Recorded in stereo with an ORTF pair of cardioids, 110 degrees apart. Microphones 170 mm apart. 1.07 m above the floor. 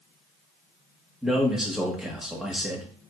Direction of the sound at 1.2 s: 5° right.